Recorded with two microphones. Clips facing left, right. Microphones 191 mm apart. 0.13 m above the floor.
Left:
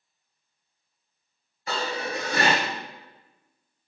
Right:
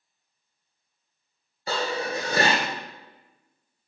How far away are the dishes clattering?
About 1.2 m.